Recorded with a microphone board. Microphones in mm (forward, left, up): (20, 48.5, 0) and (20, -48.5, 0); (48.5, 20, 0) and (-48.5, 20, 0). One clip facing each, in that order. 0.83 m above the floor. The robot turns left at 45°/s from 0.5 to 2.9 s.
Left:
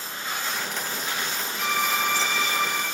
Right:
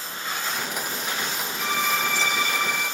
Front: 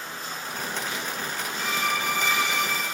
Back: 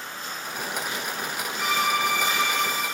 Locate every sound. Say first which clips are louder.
1.6 s a violin: even, back 4 dB; straight behind, 2.5 m; by 2.8 s 125° left, 2.5 m